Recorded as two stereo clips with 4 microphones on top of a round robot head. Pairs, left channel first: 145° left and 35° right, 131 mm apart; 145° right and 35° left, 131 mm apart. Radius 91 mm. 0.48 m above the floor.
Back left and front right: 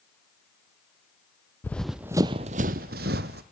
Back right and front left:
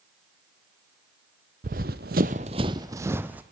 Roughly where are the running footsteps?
Ahead left.